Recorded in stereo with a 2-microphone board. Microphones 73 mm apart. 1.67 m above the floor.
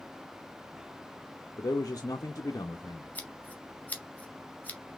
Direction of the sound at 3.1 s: 25° left (ahead or behind).